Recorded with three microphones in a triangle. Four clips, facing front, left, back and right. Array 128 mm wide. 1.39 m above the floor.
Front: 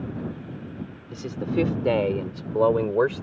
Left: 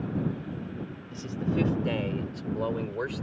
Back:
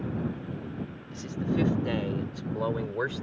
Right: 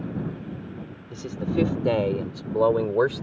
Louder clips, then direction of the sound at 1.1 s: Right 4 dB, front 4 dB; 35° right.